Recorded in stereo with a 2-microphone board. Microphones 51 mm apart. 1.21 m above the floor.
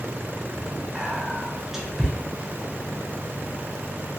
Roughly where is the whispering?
Centre.